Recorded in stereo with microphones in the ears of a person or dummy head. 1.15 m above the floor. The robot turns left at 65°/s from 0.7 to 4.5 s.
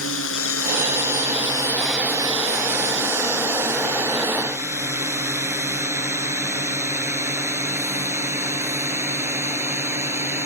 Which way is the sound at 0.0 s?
80° left.